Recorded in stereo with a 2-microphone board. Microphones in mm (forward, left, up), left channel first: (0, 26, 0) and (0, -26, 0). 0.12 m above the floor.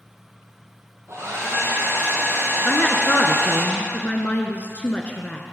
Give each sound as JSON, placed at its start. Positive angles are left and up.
{"t": 1.1, "sound": "a hair dryer", "side_deg": -65, "distance_m": 4.0}
{"t": 2.6, "sound": "a woman speaking", "side_deg": 25, "distance_m": 1.3}